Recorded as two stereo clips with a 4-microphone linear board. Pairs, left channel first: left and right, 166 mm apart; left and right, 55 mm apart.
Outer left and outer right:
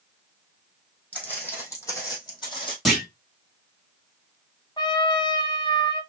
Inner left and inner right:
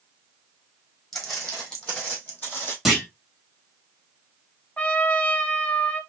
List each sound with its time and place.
1.1 s footsteps: 10° left (ahead or behind), 2.5 m; by 2.8 s 30° left (ahead or behind), 2.5 m
2.9 s a clunk: centre (ahead or behind), 2 m
4.8 s a trumpet: 30° left (ahead or behind), 0.6 m